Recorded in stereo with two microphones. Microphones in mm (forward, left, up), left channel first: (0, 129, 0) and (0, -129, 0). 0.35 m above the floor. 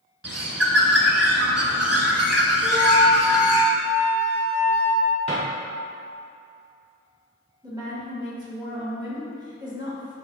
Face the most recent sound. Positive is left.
turn(degrees=-15)  # may be behind; listen again after turning